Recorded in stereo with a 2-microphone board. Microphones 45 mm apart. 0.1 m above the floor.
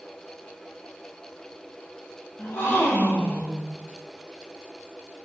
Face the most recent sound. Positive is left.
turn(degrees=50)  # may be behind; listen again after turning